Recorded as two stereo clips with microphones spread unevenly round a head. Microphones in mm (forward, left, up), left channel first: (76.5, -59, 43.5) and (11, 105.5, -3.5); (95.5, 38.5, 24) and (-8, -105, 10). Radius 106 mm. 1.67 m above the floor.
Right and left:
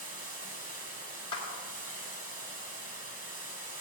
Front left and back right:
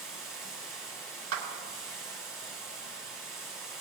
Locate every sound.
0.0 s running water: 125° left, 2.5 m
1.3 s a clap: 135° right, 2 m